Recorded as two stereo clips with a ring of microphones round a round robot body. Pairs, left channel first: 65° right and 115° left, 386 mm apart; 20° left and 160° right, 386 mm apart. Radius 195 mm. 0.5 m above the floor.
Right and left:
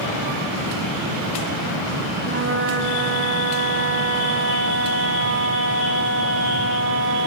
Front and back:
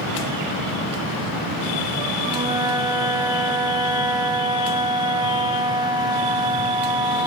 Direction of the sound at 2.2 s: 130° left.